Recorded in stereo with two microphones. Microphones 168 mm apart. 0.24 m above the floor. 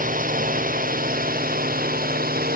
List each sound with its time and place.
0.0 s a drone: 55° right (ahead or behind); by 2.6 s 60° right (ahead or behind)